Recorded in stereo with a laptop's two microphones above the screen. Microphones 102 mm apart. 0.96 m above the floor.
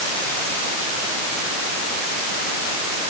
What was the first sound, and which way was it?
Only background noise.